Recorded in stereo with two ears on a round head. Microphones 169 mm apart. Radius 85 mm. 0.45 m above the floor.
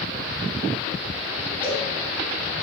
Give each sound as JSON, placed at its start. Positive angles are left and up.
{"t": 1.6, "sound": "a cowbell", "side_deg": -10, "distance_m": 3.0}